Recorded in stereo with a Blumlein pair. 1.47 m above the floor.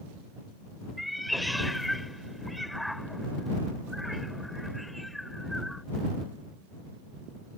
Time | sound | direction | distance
1.0 | a cat meowing | straight ahead | ?